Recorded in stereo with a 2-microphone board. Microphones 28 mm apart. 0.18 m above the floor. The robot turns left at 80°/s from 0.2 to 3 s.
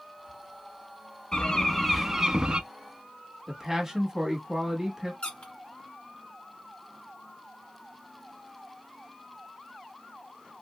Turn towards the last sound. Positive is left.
turn(degrees=40)  # may be behind; listen again after turning